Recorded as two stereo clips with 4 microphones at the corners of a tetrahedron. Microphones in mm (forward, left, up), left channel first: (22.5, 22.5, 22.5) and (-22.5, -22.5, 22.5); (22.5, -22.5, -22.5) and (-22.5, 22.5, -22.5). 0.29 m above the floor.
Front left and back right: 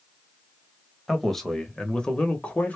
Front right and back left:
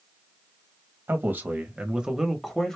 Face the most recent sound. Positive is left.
turn(degrees=25)